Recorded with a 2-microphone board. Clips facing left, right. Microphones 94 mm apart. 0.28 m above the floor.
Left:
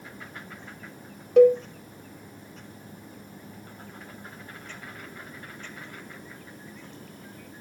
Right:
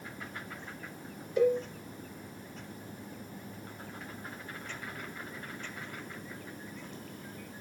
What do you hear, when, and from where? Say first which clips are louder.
1.4 s a cowbell: left 11 dB; 65° left (ahead or behind), 0.8 m